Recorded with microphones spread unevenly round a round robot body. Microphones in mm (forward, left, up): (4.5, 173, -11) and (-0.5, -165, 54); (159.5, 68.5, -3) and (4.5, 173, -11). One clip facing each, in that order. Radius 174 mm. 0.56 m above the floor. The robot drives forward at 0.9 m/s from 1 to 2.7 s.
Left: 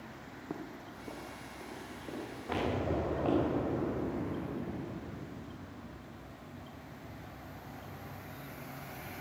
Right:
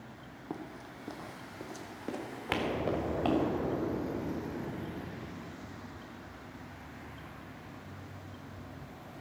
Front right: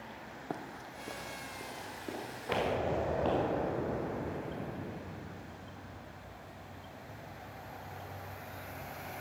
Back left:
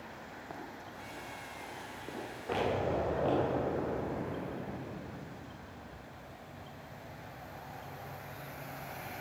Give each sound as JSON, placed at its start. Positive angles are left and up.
{"t": 0.5, "sound": "running footsteps", "azimuth_deg": -10, "distance_m": 1.0}
{"t": 2.5, "sound": "an explosion", "azimuth_deg": 95, "distance_m": 2.0}